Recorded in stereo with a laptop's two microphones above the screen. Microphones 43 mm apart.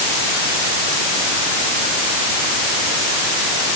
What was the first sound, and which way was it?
Only background noise.